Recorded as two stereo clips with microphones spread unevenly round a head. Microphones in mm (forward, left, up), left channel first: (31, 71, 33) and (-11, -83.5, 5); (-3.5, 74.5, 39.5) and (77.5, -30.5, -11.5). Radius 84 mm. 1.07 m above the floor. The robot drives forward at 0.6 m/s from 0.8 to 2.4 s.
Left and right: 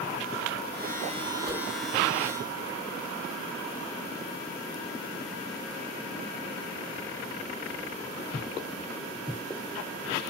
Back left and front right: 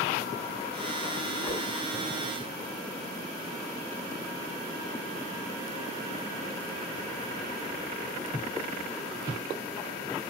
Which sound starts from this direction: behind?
A whoosh, at 1.4 s.